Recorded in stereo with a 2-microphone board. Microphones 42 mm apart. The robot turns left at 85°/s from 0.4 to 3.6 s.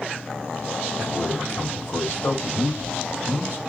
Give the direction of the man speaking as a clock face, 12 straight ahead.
6 o'clock.